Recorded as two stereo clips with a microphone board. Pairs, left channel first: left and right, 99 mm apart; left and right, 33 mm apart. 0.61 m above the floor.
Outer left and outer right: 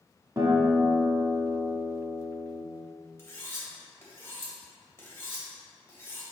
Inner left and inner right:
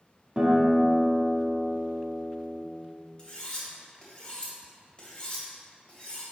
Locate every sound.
0.4 s a guitar: 35° right (ahead or behind), 1.3 m
3.2 s cutlery clinking: 30° left (ahead or behind), 1.7 m